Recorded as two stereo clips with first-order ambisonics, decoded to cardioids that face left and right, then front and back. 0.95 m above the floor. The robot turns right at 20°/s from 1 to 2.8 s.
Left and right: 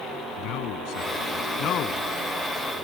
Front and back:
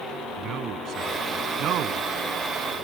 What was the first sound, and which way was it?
A man speaking, 125° left.